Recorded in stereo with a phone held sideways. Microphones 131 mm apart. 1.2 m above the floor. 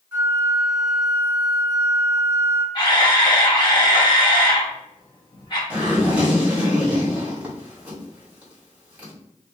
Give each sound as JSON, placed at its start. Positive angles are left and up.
{"t": 0.1, "sound": "a flute", "side_deg": -15, "distance_m": 1.9}
{"t": 2.8, "sound": "a camera shutter", "side_deg": 35, "distance_m": 1.1}
{"t": 5.7, "sound": "a zipper", "side_deg": -10, "distance_m": 1.7}